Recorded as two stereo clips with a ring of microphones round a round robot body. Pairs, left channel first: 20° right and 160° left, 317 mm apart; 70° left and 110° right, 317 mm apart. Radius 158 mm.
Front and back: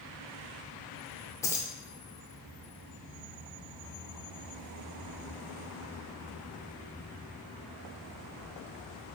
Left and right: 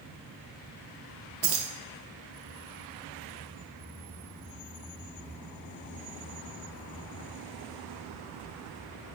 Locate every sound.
1.4 s keys jangling: 100° right, 0.5 m